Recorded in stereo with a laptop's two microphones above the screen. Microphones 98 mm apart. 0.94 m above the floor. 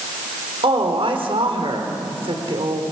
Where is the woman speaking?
70° right (ahead or behind), 3.5 m.